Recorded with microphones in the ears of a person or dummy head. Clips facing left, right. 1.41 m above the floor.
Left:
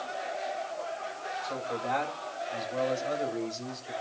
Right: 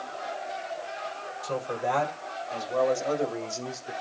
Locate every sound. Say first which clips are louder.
1.4 s a man speaking: right 5 dB; 55° right (ahead or behind), 7.5 m; by 3.9 s 65° right (ahead or behind), 7 m